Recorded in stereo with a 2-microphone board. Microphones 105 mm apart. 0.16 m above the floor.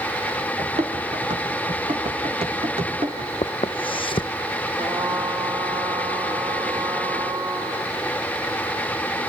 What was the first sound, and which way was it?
Running footsteps, 85° right.